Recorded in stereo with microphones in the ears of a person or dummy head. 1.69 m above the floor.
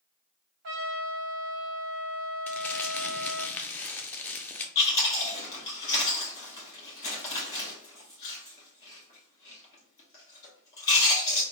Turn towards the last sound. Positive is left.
turn(degrees=20)  # may be behind; listen again after turning